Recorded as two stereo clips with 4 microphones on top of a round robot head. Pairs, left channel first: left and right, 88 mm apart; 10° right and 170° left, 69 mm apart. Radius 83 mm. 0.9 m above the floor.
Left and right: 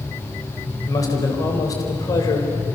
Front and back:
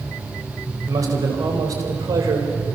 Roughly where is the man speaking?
Behind left.